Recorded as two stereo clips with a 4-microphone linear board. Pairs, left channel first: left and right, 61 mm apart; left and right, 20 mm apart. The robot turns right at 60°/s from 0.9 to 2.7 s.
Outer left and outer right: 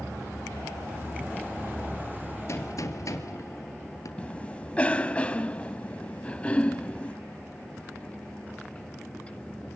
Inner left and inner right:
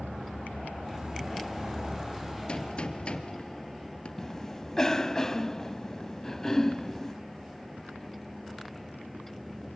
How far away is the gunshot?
About 2.5 m.